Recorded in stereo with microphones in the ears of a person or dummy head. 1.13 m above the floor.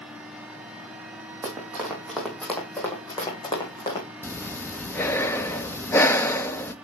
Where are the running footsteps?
15° right (ahead or behind), 2.5 m; by 4.0 s 25° left (ahead or behind), 3.5 m.